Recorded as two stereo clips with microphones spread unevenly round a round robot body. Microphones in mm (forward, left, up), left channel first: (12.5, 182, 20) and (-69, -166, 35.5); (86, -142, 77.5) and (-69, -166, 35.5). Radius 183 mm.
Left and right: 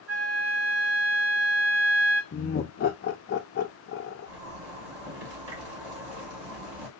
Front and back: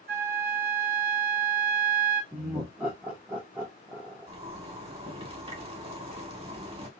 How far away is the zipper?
About 2 m.